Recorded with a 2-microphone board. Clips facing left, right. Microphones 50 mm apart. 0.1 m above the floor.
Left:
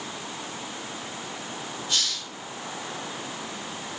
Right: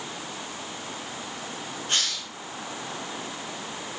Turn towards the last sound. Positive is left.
turn(degrees=-50)  # may be behind; listen again after turning